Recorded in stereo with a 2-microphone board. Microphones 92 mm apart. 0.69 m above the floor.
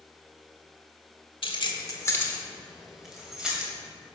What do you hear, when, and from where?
1.4 s keys jangling: 65° left (ahead or behind), 1.2 m; by 3.7 s 10° right (ahead or behind), 2.5 m